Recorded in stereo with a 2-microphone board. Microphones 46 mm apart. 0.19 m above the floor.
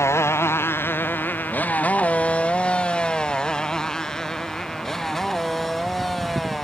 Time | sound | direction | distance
0.0 | a motorcycle | 65° left (ahead or behind) | ?